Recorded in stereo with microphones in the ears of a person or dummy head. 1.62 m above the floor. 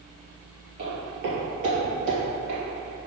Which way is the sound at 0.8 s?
35° right (ahead or behind).